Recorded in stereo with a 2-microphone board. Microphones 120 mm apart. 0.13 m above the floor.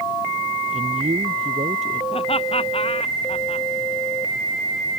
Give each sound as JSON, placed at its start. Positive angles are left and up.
{"t": 0.7, "sound": "a man speaking", "side_deg": -70}
{"t": 2.1, "sound": "laughter", "side_deg": 55}